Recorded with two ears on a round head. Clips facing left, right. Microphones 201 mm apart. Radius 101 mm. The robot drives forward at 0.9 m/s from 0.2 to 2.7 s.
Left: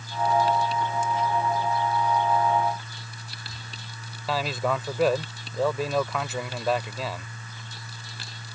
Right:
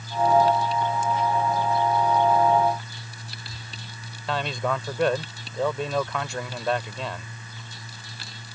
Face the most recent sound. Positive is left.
turn(degrees=5)  # may be behind; listen again after turning